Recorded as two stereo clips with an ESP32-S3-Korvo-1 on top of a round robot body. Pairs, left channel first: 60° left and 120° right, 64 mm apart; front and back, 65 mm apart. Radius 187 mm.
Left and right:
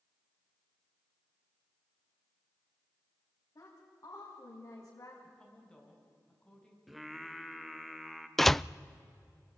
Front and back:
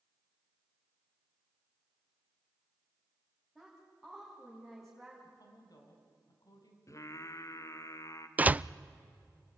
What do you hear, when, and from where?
3.5 s a woman speaking: 95° left, 4 m
5.2 s a woman speaking: 20° right, 4.5 m
6.9 s singing: 30° right, 1.5 m
8.4 s a door slam: 140° left, 0.6 m